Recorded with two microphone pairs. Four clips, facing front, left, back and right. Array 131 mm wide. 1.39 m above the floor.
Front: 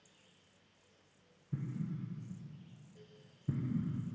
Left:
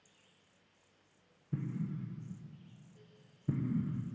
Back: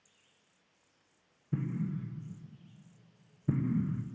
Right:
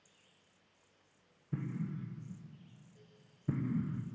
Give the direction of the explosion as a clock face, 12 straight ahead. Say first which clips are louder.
Left 1 dB, back 6 dB; 5 o'clock.